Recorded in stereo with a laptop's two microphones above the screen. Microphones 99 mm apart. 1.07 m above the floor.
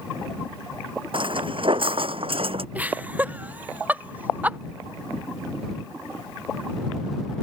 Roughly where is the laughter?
Centre.